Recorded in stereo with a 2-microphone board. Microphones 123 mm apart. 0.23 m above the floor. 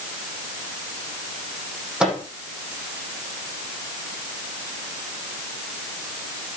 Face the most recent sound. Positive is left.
turn(degrees=-10)  # may be behind; listen again after turning